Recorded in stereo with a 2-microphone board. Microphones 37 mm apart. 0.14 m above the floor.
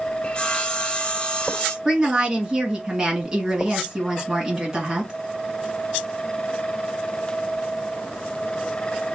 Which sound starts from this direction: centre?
A woman speaking, at 1.9 s.